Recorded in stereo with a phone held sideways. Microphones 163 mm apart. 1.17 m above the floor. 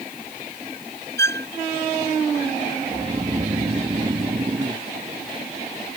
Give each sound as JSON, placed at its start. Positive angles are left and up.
{"t": 1.2, "sound": "a violin", "side_deg": 15}
{"t": 2.9, "sound": "snoring", "side_deg": -30}